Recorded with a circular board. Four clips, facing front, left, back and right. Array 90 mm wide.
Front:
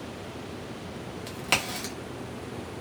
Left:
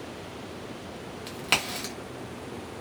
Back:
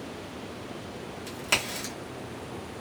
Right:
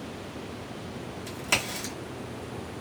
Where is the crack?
65° left, 1.2 m.